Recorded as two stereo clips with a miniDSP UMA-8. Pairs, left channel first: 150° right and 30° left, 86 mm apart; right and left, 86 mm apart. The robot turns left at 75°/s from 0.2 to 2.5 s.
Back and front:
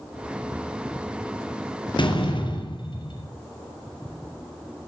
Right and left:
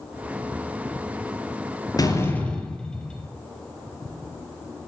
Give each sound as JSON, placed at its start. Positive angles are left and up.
{"t": 2.0, "sound": "a door slam", "azimuth_deg": -130, "distance_m": 4.5}